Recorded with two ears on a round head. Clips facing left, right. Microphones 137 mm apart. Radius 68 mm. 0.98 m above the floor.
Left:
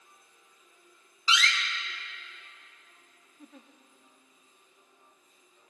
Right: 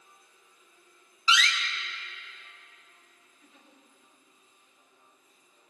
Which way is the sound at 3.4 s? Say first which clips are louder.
Left 9 dB; 40° left (ahead or behind).